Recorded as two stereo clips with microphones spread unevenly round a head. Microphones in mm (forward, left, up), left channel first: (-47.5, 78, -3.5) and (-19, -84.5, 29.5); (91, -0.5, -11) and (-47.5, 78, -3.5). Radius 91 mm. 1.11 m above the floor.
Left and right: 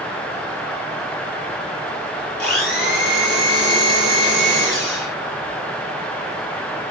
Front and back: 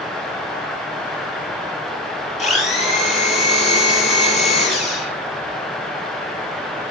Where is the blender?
15° left, 6.5 m.